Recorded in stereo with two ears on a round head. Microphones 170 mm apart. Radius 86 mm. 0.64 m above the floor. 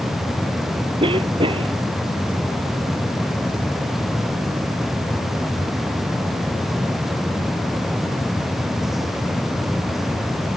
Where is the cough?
25° right (ahead or behind).